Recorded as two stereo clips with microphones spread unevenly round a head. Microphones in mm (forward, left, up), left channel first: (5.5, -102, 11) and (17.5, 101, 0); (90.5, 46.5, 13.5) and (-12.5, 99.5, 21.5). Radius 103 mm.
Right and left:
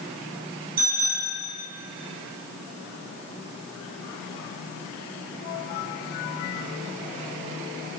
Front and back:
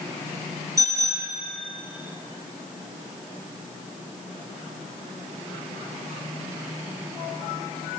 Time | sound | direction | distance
0.8 | a bicycle bell | 90° left | 6.5 m